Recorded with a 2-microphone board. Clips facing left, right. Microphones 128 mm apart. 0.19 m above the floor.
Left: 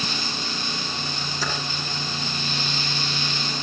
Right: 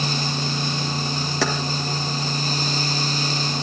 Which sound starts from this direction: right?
Keys jangling, at 1.4 s.